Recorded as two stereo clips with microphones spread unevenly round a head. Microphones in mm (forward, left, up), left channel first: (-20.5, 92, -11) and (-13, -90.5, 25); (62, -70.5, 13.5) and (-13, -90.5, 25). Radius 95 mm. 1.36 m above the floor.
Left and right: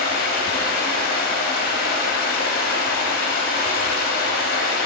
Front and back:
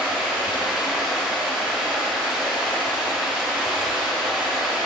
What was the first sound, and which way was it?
Running water, 120° left.